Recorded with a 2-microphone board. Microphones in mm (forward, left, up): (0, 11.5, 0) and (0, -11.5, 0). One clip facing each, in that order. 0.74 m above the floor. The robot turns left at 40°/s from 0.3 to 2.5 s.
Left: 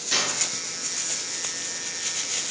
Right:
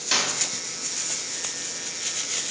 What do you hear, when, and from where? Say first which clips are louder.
0.1 s a clap: right 1 dB; 30° right (ahead or behind), 3.5 m